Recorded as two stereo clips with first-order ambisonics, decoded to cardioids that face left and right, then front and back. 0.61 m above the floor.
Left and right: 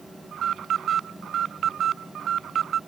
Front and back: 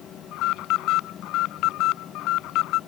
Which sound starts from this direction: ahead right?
An alarm, at 0.3 s.